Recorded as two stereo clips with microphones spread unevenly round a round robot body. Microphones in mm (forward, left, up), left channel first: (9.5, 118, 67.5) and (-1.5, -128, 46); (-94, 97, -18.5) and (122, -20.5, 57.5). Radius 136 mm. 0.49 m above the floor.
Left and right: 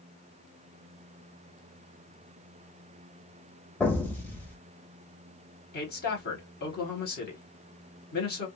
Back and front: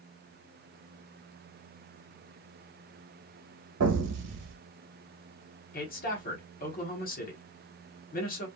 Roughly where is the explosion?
Ahead.